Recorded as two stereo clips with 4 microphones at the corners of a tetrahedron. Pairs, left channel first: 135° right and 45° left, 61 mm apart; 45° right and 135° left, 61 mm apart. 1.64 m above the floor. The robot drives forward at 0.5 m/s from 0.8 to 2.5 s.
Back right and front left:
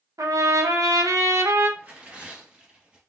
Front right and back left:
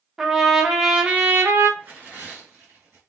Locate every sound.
0.2 s a trumpet: 50° left, 0.7 m; by 1.7 s 95° left, 0.5 m
1.8 s tearing paper: 90° left, 1.8 m; by 3.0 s 105° left, 1.9 m